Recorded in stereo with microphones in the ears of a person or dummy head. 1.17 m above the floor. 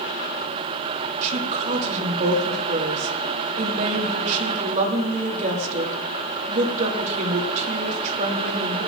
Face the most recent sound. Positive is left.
turn(degrees=-45)  # may be behind; listen again after turning